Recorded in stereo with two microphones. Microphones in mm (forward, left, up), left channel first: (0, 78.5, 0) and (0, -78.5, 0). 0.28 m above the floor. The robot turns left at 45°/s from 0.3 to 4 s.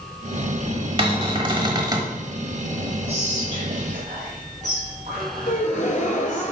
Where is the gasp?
60° left (ahead or behind), 1.1 m.